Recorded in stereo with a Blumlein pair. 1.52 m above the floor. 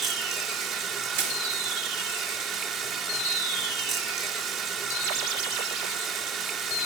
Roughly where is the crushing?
Ahead right.